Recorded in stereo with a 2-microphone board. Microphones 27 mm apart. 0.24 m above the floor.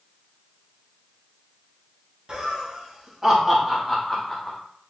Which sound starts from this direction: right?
Laughter, at 2.3 s.